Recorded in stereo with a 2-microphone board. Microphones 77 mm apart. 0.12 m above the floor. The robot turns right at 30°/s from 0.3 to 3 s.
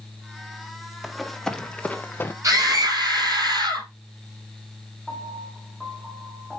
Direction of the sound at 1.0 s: Centre (ahead or behind).